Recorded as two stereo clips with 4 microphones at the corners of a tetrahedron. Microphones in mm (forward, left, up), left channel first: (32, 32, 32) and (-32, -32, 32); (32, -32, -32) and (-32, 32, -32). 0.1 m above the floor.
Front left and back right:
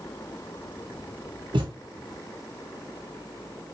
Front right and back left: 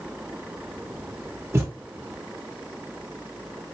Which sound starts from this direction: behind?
A thud, at 1.5 s.